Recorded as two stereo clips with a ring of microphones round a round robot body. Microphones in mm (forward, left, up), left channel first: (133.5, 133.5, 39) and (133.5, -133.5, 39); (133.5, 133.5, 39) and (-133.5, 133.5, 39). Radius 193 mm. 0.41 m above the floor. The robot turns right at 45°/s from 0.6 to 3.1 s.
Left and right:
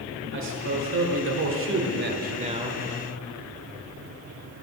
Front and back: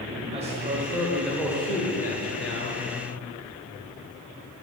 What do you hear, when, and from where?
0.3 s a man speaking: 115° right, 1.4 m; by 2.8 s 20° right, 1.4 m